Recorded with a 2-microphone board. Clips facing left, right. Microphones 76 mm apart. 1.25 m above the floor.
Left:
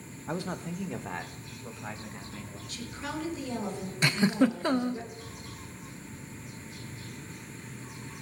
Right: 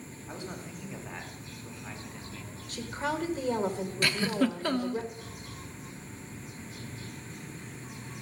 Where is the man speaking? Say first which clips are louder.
Left 7 dB; 85° left, 1.2 m; by 2.6 s 40° left (ahead or behind), 2.5 m.